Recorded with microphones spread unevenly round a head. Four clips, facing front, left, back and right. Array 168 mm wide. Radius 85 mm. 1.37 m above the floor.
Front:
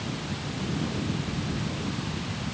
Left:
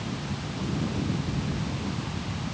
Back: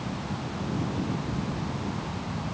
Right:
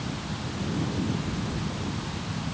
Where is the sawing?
No sawing in this recording.